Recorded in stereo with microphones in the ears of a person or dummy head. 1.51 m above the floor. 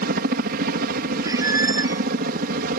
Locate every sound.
0.0 s a helicopter: 55° right (ahead or behind); by 2.8 s 50° right (ahead or behind)
1.2 s a squeak: 25° right (ahead or behind)